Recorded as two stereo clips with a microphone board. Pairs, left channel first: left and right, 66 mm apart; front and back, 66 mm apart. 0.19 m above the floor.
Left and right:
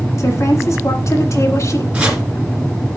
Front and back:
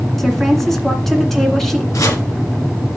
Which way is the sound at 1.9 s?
20° right.